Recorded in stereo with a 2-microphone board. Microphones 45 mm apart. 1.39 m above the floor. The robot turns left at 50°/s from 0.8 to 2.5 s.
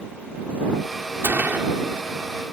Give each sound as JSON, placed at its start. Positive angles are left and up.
{"t": 1.2, "sound": "a gunshot", "side_deg": -60}